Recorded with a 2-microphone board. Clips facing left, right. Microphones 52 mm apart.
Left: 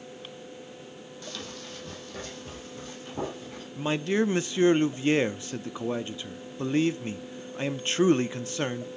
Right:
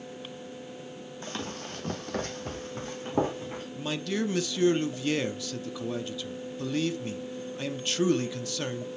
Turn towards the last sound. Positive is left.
turn(degrees=30)  # may be behind; listen again after turning